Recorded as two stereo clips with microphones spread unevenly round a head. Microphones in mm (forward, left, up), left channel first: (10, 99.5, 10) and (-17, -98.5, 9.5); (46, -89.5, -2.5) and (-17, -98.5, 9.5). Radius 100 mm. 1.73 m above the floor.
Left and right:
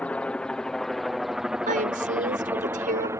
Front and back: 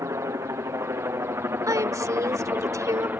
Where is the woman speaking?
150° right.